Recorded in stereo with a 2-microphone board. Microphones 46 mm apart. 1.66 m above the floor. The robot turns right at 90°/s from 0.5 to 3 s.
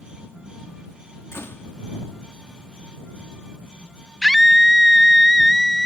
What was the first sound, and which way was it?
A door slam, 95° left.